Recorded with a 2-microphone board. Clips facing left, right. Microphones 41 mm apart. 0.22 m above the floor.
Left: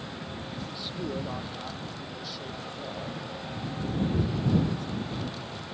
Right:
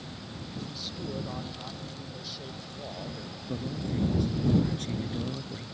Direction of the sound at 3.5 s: 65° right (ahead or behind).